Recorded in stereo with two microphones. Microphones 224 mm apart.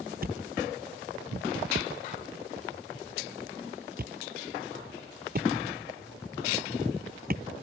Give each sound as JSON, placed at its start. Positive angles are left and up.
{"t": 0.2, "sound": "a thud", "side_deg": -40}